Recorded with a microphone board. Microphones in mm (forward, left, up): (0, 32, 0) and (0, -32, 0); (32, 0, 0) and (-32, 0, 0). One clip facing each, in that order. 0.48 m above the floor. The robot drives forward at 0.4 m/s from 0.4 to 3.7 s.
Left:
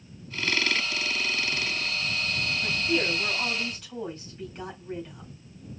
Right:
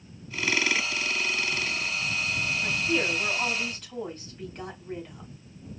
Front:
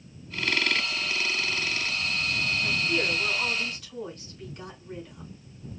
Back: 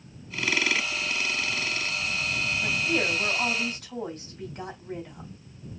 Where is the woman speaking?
175° left, 2.5 m.